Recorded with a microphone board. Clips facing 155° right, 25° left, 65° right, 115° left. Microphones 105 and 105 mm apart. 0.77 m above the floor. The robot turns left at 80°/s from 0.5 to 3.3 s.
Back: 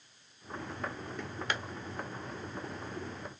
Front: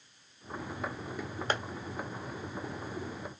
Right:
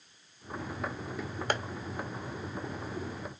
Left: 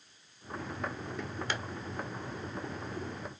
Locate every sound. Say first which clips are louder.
1.5 s tapping: front 4 dB, right 6 dB; 25° right, 0.7 m; by 1.6 s 35° right, 0.7 m